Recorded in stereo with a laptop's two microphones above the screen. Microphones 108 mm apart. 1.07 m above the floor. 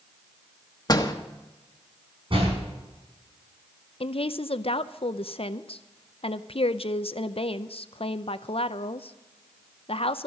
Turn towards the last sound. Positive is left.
turn(degrees=60)  # may be behind; listen again after turning